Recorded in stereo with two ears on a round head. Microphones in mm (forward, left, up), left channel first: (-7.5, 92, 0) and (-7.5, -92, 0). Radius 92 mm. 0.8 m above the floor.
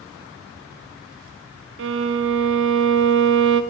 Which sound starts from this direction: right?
A violin, at 1.8 s.